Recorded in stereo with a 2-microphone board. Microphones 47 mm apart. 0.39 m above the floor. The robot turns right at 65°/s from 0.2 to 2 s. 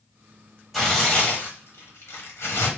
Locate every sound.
0.7 s tearing paper: straight ahead, 0.9 m; by 2.7 s 80° left, 0.9 m